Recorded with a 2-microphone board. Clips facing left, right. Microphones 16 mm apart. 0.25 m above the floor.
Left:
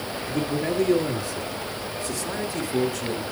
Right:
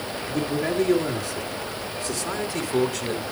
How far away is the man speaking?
About 4.5 m.